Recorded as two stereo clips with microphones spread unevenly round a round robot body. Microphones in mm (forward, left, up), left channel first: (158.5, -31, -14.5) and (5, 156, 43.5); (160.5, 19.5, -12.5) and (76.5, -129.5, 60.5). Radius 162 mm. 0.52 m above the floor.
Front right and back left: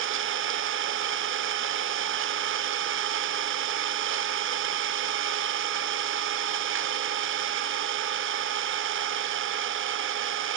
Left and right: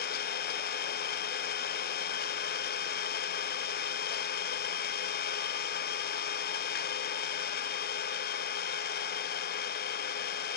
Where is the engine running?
80° left, 0.9 m.